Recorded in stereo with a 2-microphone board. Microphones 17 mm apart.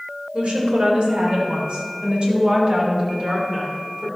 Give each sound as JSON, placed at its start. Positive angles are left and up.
{"t": 0.3, "sound": "a woman speaking", "side_deg": -75, "distance_m": 4.0}